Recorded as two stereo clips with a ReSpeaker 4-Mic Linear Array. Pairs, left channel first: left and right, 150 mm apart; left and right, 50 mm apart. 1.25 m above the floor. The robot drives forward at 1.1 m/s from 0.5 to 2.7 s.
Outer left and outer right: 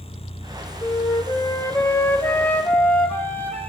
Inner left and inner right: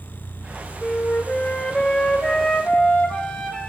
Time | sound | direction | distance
0.8 | a flute | 25° left (ahead or behind) | 2 m